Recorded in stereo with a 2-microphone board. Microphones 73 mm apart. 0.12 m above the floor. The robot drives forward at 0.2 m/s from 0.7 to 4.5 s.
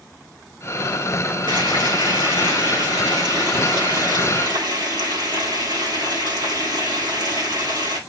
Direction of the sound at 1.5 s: 75° right (ahead or behind).